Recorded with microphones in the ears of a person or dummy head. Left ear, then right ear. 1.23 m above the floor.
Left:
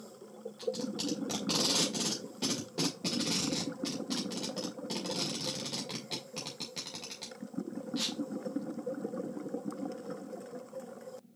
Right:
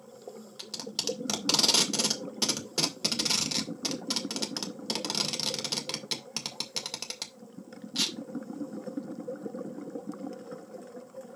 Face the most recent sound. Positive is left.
turn(degrees=-50)  # may be behind; listen again after turning